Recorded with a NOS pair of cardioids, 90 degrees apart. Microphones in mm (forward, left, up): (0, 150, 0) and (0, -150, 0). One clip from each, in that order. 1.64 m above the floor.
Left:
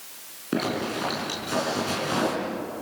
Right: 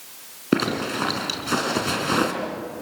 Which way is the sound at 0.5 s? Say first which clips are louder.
Right 4 dB; 50° right.